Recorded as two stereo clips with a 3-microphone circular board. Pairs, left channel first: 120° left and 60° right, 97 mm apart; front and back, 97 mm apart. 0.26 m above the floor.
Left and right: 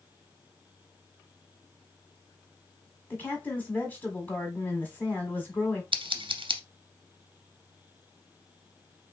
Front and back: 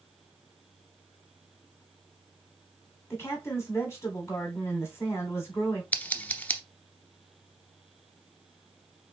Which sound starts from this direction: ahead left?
A woman speaking, at 3.1 s.